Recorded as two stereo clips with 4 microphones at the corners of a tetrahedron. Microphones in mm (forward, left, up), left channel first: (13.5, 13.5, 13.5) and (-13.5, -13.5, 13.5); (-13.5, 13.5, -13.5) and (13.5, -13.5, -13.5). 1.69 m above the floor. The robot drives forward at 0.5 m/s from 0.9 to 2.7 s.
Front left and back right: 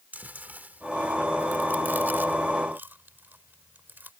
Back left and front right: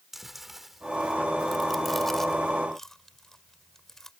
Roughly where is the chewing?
Behind right.